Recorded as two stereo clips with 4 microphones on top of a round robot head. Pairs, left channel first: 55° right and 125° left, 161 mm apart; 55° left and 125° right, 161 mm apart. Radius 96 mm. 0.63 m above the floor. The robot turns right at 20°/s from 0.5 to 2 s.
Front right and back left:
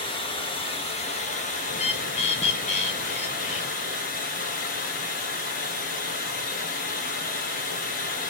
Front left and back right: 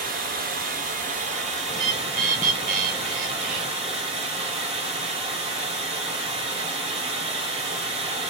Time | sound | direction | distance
0.0 | running water | 110° right | 1.1 m
1.7 | a bird | 100° right | 0.5 m